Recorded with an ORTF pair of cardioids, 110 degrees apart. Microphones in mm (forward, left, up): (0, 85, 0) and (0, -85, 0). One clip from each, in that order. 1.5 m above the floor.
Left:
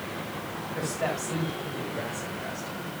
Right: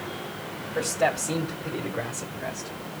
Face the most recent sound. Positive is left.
turn(degrees=-40)